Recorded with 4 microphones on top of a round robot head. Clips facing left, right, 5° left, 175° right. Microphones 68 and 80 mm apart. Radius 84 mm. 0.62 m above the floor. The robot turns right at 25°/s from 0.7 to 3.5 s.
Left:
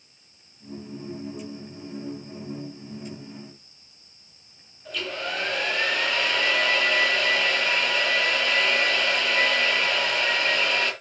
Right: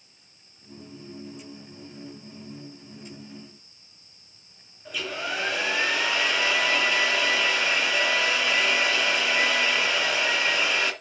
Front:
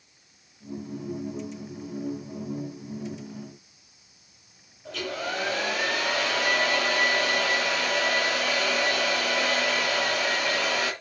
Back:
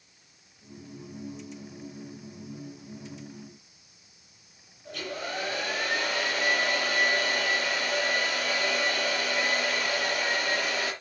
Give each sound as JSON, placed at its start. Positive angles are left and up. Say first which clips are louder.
{"t": 4.8, "sound": "a hair dryer", "louder": "even, front 4 dB", "azimuth_deg": -5, "distance_m": 3.0}